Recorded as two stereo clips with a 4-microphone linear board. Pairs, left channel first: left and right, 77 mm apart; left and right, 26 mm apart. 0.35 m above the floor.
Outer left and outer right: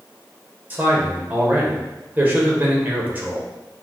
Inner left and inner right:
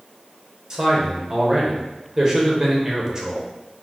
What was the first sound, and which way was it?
A man speaking, 25° right (ahead or behind).